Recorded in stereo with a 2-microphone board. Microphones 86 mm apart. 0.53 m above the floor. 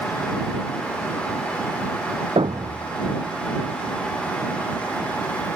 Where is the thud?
85° right.